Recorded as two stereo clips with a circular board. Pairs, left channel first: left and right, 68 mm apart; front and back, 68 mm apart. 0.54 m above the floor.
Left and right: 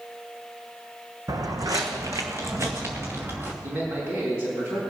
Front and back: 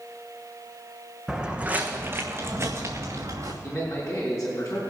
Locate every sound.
1.3 s footsteps: 95° right, 1.3 m; by 3.5 s 145° right, 2.5 m
3.6 s a man speaking: 55° right, 4 m